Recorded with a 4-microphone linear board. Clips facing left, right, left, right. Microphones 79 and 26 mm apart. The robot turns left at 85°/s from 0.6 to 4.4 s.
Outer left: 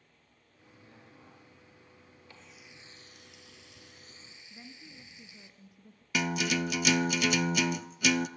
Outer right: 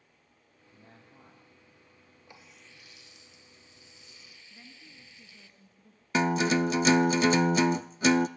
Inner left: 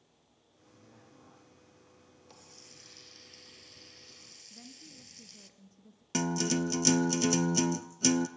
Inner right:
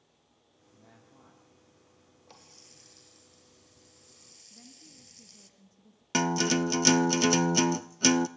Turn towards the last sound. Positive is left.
turn(degrees=-30)  # may be behind; listen again after turning